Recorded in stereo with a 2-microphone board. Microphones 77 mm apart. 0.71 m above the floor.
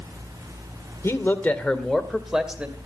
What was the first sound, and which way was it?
A man speaking, 35° left (ahead or behind).